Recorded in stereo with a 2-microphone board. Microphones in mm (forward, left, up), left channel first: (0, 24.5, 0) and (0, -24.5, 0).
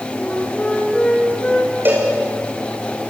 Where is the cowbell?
40° right (ahead or behind), 6.5 m.